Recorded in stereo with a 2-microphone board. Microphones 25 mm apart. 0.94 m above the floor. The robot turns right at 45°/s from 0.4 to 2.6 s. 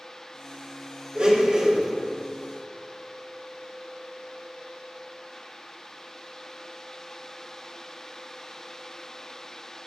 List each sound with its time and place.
1.1 s a blender: 45° right, 2.0 m; by 1.9 s 10° right, 2.0 m